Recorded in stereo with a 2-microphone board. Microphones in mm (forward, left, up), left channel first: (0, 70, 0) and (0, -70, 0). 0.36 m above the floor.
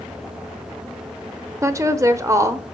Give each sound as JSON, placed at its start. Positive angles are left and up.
{"t": 1.6, "sound": "a woman speaking", "side_deg": -25, "distance_m": 0.8}